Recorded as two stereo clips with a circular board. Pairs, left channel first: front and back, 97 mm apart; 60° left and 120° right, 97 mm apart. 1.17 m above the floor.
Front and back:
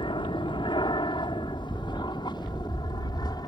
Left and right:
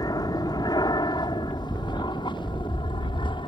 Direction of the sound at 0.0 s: 20° left.